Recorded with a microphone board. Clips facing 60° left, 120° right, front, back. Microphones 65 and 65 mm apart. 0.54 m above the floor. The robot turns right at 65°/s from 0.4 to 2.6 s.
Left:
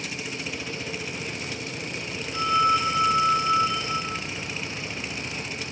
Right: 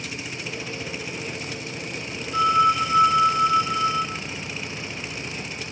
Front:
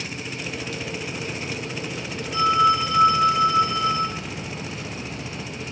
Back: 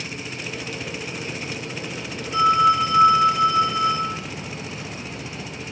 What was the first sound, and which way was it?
A phone ringing, 110° right.